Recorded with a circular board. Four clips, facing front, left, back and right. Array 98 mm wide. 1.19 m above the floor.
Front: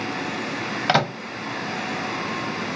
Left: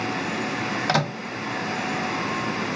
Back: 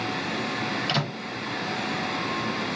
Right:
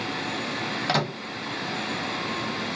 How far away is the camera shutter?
I don't hear a camera shutter.